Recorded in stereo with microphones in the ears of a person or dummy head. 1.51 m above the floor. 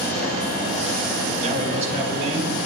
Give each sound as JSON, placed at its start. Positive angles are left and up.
{"t": 1.4, "sound": "a man speaking", "side_deg": -40, "distance_m": 2.0}